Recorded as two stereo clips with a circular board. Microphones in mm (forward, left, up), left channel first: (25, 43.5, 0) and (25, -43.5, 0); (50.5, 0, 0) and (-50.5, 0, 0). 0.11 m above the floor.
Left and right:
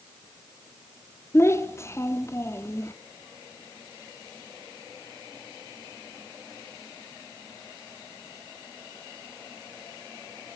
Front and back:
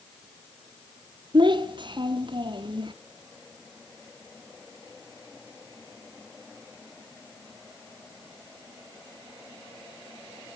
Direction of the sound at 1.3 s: 145° left.